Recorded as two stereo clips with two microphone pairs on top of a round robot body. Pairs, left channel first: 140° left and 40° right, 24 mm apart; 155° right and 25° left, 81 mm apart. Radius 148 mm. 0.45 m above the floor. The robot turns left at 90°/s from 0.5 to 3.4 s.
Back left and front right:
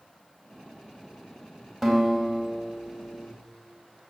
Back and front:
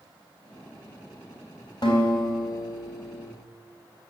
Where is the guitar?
130° right, 4 m; by 3.2 s 100° left, 4 m.